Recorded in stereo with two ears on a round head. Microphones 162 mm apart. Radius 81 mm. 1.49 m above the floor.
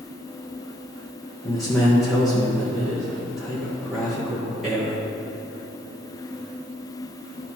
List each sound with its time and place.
1.4 s a man speaking: centre (ahead or behind), 1.2 m